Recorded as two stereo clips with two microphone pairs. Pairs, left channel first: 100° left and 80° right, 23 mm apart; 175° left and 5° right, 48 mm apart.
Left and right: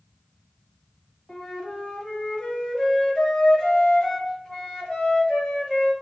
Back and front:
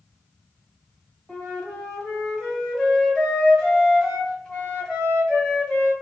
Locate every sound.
1.3 s a flute: 105° left, 1.3 m